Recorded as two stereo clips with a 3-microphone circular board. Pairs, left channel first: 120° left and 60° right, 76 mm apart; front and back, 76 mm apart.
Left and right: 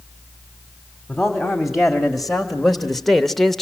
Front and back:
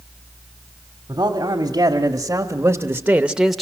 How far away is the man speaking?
About 2.5 m.